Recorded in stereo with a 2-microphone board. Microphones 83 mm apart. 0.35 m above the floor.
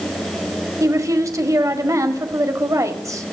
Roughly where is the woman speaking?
Right.